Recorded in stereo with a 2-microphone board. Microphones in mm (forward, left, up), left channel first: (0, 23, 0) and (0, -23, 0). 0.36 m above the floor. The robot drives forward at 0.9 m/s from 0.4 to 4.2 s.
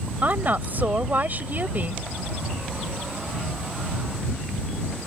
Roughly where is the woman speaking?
Right.